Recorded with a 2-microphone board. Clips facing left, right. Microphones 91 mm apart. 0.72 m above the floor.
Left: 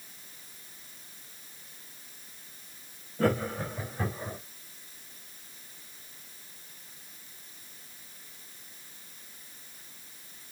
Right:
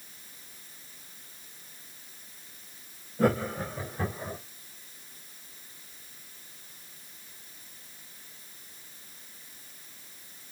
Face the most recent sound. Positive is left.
turn(degrees=-15)  # may be behind; listen again after turning